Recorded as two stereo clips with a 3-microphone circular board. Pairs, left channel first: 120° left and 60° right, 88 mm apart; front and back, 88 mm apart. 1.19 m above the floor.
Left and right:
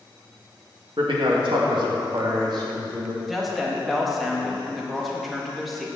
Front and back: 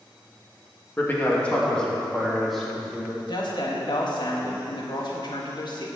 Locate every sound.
1.0 s a man speaking: 65° right, 1.9 m; by 3.2 s 95° right, 3.5 m
3.3 s a woman speaking: 30° left, 1.9 m